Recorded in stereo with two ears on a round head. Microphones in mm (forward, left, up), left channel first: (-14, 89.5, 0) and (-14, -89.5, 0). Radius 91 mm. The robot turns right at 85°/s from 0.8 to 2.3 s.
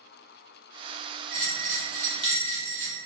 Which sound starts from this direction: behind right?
A bell, at 1.3 s.